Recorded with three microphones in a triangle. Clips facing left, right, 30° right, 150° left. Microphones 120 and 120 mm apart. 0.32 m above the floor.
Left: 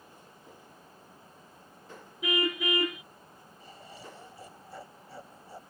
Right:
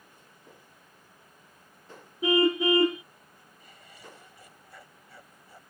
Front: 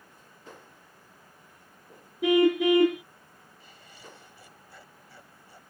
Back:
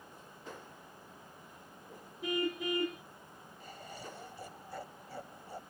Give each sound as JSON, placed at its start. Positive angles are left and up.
{"t": 2.2, "sound": "a car horn", "azimuth_deg": -30}
{"t": 3.6, "sound": "laughter", "azimuth_deg": 135}